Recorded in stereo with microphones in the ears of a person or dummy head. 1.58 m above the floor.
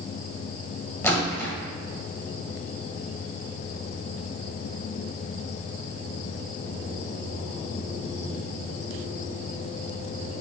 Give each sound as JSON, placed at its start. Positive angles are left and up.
{"t": 1.0, "sound": "a splash", "side_deg": 10, "distance_m": 2.0}